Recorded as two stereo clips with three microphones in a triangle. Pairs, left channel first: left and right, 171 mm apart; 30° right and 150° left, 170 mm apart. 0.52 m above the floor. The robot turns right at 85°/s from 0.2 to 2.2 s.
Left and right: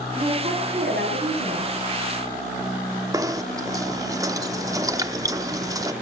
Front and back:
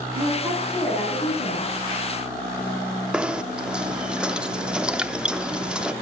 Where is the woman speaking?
160° right, 4.5 m; by 1.7 s 30° right, 4.5 m.